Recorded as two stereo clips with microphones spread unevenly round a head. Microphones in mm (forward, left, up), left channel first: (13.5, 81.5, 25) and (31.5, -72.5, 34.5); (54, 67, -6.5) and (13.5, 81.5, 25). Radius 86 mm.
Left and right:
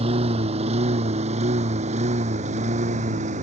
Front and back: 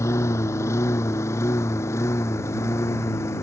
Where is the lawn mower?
30° right; by 3.4 s 40° right.